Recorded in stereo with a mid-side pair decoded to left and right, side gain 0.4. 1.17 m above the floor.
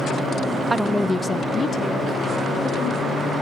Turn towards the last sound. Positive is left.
turn(degrees=60)